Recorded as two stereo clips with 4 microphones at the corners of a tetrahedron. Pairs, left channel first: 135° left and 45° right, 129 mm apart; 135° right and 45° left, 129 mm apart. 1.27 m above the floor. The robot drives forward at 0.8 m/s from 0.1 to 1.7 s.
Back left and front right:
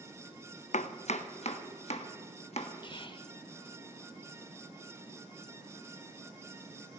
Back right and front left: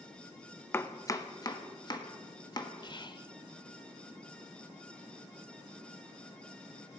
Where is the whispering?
175° left, 0.9 m.